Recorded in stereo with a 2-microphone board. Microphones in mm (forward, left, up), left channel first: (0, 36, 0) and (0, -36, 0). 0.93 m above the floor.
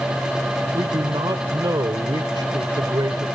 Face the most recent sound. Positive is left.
turn(degrees=-85)